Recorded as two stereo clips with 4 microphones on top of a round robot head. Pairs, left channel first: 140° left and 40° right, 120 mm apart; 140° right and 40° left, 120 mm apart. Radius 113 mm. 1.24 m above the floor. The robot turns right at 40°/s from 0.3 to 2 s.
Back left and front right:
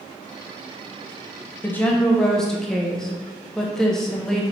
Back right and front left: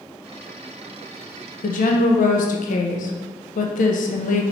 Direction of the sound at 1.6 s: 145° right.